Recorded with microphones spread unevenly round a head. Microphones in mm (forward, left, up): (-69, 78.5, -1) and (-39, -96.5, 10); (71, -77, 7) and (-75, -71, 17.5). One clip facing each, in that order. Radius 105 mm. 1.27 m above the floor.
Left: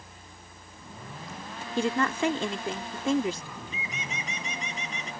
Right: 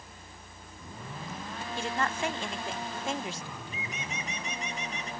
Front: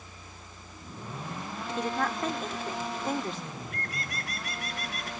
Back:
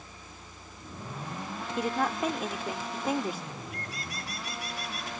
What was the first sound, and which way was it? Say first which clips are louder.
A woman speaking: left 6 dB, back 1 dB; 95° left.